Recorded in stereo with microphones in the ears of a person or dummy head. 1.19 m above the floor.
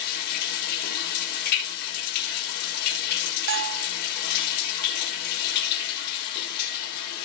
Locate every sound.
0.0 s running water: 60° left (ahead or behind), 2.5 m
3.5 s a bell: 65° right (ahead or behind), 0.5 m